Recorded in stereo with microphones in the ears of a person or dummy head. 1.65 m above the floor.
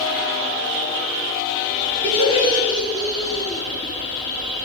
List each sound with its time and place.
2.0 s laughter: 40° right (ahead or behind), 4 m; by 3.6 s 20° right (ahead or behind), 4.5 m